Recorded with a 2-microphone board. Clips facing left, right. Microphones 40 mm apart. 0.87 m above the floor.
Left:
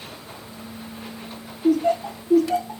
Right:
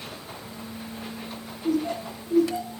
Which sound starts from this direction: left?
Laughter, at 1.6 s.